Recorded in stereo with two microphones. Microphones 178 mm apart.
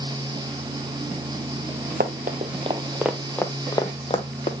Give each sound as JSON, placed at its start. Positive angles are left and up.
{"t": 2.0, "sound": "running footsteps", "side_deg": -60, "distance_m": 0.8}